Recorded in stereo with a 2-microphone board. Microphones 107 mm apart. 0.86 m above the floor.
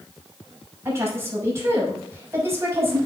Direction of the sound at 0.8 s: 25° right (ahead or behind).